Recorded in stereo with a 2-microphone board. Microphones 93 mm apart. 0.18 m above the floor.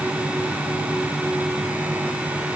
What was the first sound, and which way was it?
Only background noise.